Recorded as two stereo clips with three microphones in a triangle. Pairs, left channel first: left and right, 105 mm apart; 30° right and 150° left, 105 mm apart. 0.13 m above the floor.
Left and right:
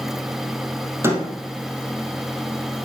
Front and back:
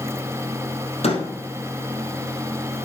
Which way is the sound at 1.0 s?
25° right.